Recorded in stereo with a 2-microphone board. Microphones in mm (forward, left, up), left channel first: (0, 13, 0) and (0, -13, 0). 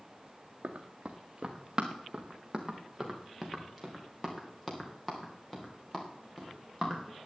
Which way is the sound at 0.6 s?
35° right (ahead or behind).